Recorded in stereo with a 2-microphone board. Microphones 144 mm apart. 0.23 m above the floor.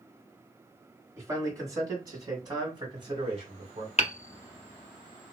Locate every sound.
1.2 s a man speaking: 20° right (ahead or behind), 2 m; by 3.9 s 40° right (ahead or behind), 1.7 m
4.0 s hammering: 50° left (ahead or behind), 0.6 m